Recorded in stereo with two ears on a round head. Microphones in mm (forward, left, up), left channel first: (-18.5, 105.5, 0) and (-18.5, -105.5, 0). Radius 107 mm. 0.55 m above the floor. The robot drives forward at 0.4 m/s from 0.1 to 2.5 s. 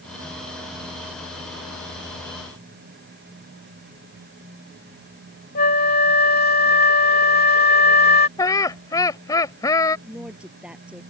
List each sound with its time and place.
5.5 s a flute: 40° left (ahead or behind)
8.4 s laughter: 15° left (ahead or behind)
10.1 s a woman speaking: 5° right (ahead or behind)